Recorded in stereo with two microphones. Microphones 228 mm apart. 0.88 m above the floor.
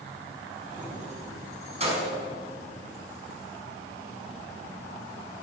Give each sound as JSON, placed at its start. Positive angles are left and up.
{"t": 0.7, "sound": "keys jangling", "side_deg": -35, "distance_m": 4.5}